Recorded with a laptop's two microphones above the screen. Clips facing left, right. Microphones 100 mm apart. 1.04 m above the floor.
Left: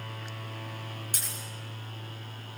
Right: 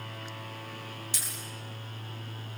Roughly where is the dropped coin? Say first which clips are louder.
Left 1 dB; left.